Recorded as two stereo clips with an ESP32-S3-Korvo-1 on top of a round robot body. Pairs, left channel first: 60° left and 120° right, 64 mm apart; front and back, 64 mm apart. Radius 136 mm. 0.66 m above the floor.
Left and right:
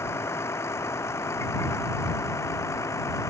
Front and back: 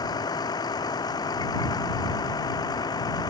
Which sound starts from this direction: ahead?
A vehicle, at 0.0 s.